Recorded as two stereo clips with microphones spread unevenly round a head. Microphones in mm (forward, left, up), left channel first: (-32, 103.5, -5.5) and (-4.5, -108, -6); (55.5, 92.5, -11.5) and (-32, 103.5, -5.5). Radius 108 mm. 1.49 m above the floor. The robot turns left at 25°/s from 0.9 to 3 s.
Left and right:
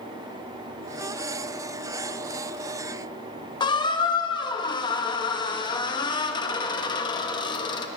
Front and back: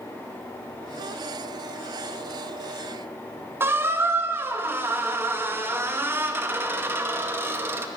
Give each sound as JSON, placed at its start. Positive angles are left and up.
{"t": 3.6, "sound": "a squeak", "azimuth_deg": 145, "distance_m": 0.9}